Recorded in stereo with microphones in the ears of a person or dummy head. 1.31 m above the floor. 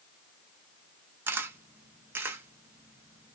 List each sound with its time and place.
1.3 s a camera shutter: 15° right (ahead or behind), 0.6 m